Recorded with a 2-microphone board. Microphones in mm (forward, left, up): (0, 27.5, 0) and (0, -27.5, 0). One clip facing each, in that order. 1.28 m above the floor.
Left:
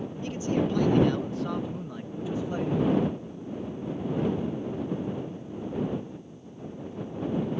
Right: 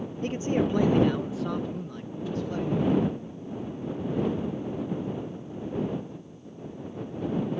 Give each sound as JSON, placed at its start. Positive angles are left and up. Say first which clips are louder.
{"t": 0.2, "sound": "a man speaking", "louder": "right 2 dB", "side_deg": -45}